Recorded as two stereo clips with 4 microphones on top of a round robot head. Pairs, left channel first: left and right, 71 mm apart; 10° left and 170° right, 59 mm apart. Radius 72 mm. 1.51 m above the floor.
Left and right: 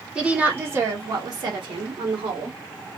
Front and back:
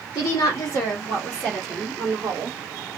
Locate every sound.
0.1 s a woman speaking: 15° right, 1.0 m; by 2.6 s 95° right, 1.3 m